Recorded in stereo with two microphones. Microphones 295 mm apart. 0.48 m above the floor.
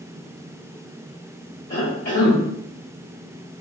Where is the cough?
55° left (ahead or behind), 1.9 m.